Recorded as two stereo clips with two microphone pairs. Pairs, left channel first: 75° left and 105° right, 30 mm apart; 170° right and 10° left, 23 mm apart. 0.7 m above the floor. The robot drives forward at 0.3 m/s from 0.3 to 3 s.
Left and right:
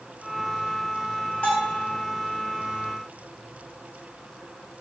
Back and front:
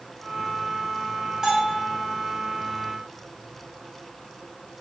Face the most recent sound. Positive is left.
turn(degrees=100)